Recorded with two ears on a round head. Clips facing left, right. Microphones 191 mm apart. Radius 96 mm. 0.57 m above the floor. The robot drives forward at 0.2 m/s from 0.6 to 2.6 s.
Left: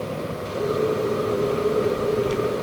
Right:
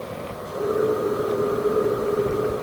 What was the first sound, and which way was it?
Only background noise.